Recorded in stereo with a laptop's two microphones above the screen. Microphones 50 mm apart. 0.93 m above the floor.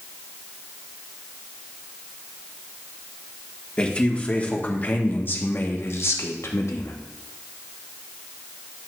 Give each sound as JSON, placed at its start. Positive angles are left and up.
{"t": 3.8, "sound": "a man speaking", "side_deg": 25, "distance_m": 2.0}